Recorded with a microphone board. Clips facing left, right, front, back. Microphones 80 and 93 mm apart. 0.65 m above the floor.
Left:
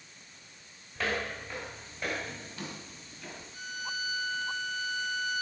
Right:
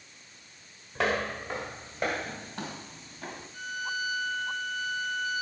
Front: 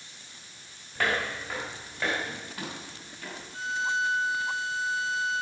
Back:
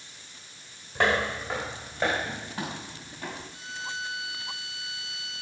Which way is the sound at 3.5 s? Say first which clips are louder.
Right 4 dB, front 14 dB; 50° right.